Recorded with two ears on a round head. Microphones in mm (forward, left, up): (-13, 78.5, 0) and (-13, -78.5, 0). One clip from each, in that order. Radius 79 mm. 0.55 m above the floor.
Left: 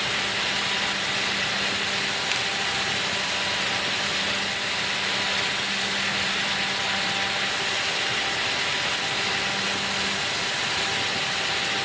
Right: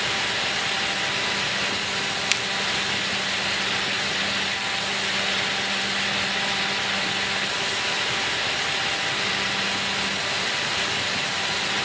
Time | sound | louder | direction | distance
2.3 | a finger snap | right 4 dB | 30° right (ahead or behind) | 5.5 m